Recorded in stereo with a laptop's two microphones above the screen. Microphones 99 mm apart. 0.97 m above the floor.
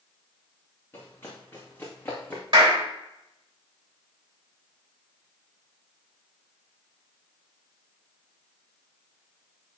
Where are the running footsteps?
25° left (ahead or behind), 4 m; by 2.4 s 20° left (ahead or behind), 3 m.